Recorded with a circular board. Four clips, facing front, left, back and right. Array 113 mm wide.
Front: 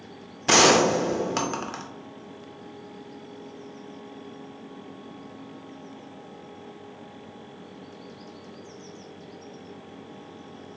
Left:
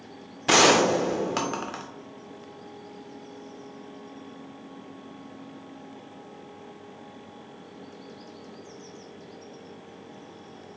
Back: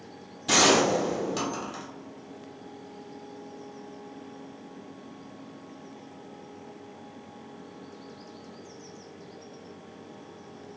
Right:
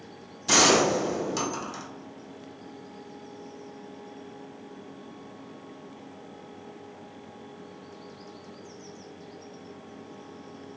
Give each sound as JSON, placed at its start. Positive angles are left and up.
{"t": 0.5, "sound": "a gunshot", "azimuth_deg": 45, "distance_m": 0.5}